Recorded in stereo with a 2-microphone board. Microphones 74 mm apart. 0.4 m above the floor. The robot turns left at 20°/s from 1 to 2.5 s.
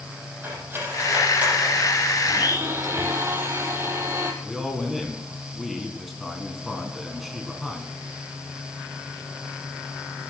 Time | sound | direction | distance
0.4 | cutlery clinking | 30° right (ahead or behind) | 9.5 m
2.3 | a blender | 40° right (ahead or behind) | 3 m
4.4 | a man speaking | centre (ahead or behind) | 4.5 m